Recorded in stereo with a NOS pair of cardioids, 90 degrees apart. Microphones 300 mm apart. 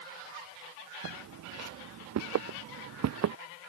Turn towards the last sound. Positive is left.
turn(degrees=-60)